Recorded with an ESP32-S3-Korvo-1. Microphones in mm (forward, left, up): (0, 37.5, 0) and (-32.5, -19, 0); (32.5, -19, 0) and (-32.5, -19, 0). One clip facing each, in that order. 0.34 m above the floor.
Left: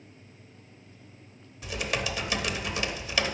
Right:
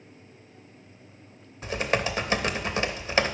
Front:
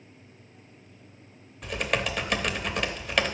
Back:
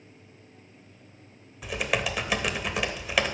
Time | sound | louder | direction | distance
1.6 | typing on a keyboard | right 5 dB, even | 100° right | 0.7 m